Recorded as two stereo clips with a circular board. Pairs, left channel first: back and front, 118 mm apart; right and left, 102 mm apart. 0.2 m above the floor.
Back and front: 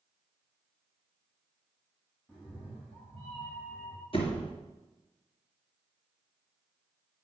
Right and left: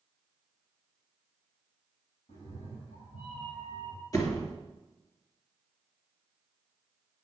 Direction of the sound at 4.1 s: 145° right.